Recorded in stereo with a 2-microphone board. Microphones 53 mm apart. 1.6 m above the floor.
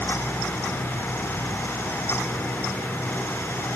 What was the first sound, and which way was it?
Only background noise.